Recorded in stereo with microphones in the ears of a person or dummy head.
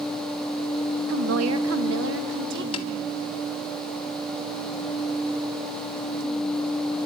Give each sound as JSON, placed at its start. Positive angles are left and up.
{"t": 1.1, "sound": "a woman speaking", "side_deg": -75, "distance_m": 1.0}
{"t": 2.7, "sound": "tapping", "side_deg": 25, "distance_m": 1.4}